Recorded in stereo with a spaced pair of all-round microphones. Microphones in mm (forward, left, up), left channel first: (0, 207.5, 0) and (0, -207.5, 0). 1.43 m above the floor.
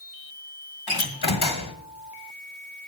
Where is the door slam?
65° left (ahead or behind), 1.5 m.